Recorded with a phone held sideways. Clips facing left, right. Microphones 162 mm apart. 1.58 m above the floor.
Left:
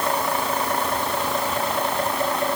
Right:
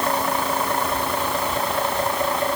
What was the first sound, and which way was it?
Only background noise.